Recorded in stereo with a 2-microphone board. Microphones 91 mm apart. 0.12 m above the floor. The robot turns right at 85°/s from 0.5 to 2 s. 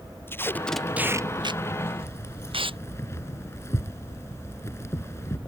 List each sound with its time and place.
0.3 s tape being pulled: 25° left (ahead or behind); by 2.8 s 75° right (ahead or behind)
2.0 s keys jangling: 30° left (ahead or behind)